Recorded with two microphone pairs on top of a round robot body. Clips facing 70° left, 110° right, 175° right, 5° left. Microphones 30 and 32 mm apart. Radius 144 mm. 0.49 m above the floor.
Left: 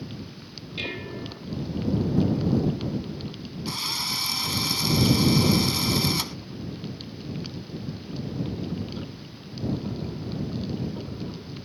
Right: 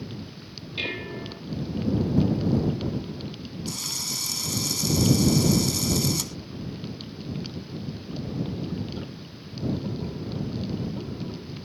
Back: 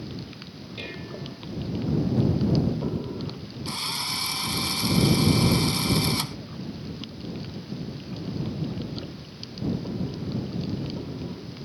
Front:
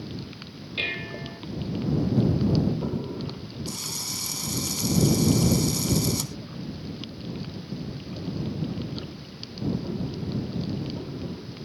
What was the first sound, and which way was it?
Dishes clattering, 35° right.